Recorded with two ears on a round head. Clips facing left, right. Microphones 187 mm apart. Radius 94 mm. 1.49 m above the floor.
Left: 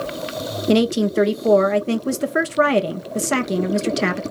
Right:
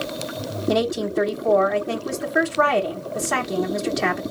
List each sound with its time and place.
0.7 s a woman speaking: 35° left (ahead or behind), 0.9 m